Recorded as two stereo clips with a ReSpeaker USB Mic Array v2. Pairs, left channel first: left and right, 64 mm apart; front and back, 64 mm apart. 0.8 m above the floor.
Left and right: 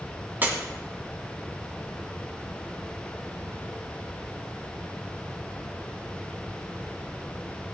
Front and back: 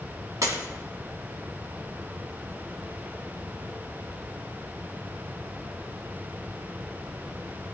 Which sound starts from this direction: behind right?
Breaking glass, at 0.4 s.